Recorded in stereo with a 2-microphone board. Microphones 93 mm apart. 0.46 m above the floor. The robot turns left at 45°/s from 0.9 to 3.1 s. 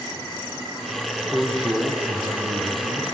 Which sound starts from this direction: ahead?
A man speaking, at 1.3 s.